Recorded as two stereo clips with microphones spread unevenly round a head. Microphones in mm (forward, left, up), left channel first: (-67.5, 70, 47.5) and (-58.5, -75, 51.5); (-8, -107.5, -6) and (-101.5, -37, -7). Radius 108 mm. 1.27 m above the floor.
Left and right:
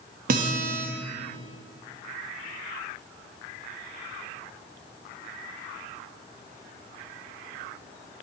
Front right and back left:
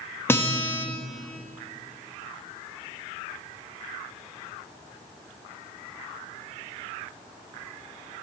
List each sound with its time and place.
0.3 s a guitar: 110° right, 1.0 m